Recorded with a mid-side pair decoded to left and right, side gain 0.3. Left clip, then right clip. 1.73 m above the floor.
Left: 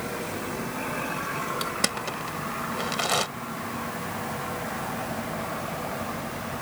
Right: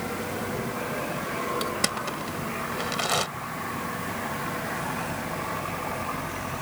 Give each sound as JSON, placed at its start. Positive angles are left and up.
{"t": 1.6, "sound": "crushing", "azimuth_deg": 5}